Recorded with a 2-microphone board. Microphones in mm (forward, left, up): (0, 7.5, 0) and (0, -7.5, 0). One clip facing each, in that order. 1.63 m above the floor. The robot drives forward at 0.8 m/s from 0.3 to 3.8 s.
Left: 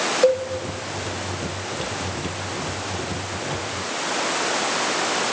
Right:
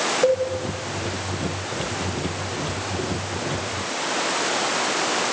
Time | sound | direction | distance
0.2 | a cowbell | 35° left (ahead or behind) | 1.0 m